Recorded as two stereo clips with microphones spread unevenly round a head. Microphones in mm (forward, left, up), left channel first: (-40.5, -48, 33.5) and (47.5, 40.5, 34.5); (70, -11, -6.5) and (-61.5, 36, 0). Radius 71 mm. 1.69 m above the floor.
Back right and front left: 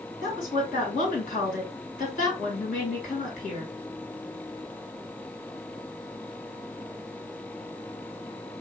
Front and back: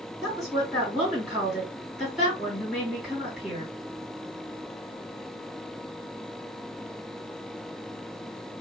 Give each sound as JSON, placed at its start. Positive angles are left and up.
{"t": 0.2, "sound": "a woman speaking", "azimuth_deg": -115, "distance_m": 2.0}